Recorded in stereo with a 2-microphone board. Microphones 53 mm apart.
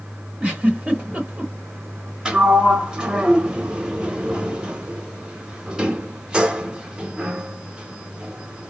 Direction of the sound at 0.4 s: 20° right (ahead or behind).